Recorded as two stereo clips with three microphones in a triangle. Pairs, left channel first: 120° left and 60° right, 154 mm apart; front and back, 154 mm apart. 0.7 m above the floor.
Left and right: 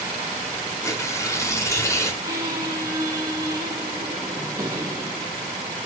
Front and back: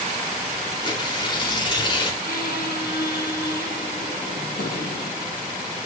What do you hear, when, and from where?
0.8 s tearing paper: 55° left, 2 m
2.2 s a squeak: 10° left, 5 m